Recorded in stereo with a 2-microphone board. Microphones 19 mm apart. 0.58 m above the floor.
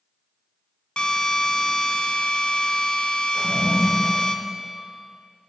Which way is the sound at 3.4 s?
35° right (ahead or behind).